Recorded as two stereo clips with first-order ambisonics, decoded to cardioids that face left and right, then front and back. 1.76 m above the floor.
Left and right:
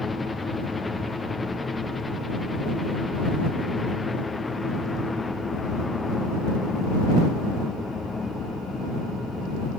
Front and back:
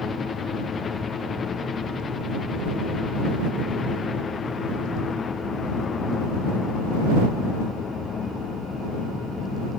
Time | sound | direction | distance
0.0 | a helicopter | 30° left | ?